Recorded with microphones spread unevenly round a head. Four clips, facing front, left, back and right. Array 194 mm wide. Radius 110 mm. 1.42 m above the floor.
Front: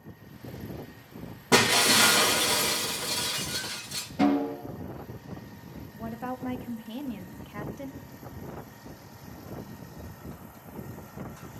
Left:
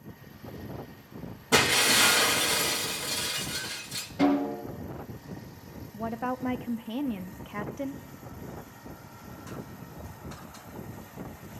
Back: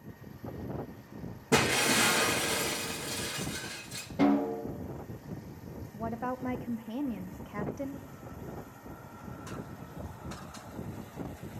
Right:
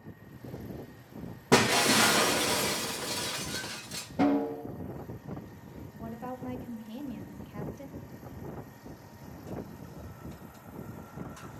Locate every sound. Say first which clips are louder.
1.5 s breaking glass: right 2 dB, front 4 dB; 95° right, 0.8 m
4.2 s a snare drum: left 2 dB, front 2 dB; 120° right, 3.5 m
5.9 s a woman speaking: left 8 dB, back 1 dB; 80° left, 0.6 m